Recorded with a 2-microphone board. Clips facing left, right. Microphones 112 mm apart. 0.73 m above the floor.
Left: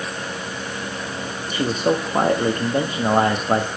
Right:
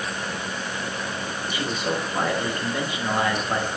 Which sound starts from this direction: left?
A man speaking, at 1.5 s.